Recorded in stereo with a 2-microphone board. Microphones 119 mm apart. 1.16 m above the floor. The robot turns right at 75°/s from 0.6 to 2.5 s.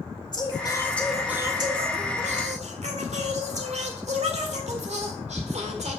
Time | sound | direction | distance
0.3 | singing | 140° left | 1.8 m